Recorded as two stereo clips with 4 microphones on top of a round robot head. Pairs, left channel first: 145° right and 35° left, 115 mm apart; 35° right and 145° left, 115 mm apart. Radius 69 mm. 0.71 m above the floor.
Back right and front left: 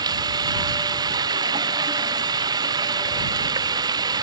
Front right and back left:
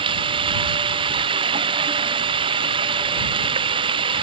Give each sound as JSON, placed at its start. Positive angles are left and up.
{"t": 0.0, "sound": "running water", "azimuth_deg": 95}